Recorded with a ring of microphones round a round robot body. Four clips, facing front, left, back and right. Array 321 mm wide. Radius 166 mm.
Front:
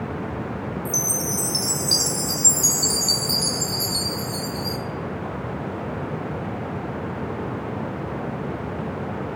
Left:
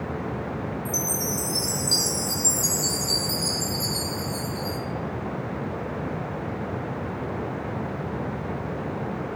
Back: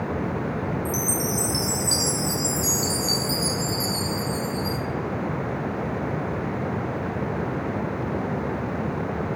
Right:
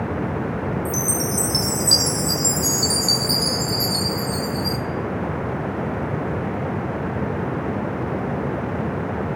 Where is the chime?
50° right, 1.7 m.